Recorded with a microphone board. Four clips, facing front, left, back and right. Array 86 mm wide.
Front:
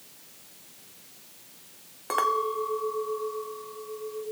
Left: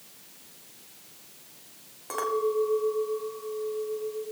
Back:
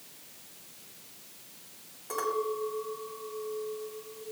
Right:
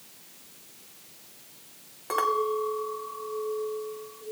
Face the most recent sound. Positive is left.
turn(degrees=-20)